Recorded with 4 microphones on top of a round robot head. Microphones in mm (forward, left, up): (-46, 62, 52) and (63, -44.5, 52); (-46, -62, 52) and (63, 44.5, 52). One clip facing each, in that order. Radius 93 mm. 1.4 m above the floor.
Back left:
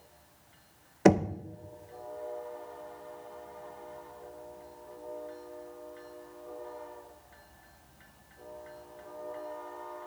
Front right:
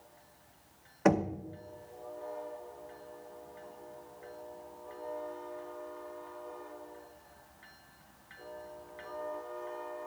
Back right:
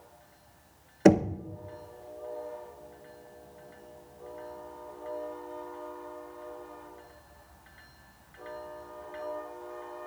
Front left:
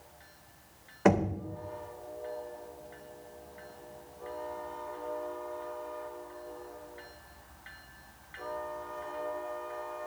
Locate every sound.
1.1 s knocking: 175° right, 0.7 m